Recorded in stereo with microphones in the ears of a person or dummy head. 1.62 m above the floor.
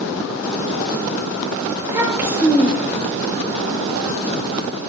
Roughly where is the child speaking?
Centre.